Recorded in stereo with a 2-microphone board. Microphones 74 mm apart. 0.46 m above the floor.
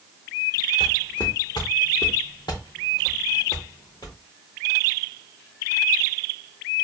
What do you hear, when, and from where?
0.8 s footsteps: 75° left (ahead or behind), 2.0 m; by 4.2 s 50° left (ahead or behind), 3.5 m